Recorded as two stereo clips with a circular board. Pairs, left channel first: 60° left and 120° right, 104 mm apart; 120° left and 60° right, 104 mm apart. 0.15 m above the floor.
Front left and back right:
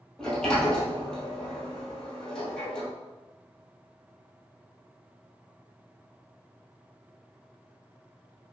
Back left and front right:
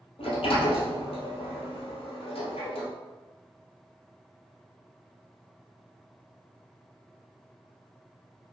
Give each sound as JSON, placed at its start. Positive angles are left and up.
{"t": 0.2, "sound": "a sliding door", "azimuth_deg": 145, "distance_m": 1.0}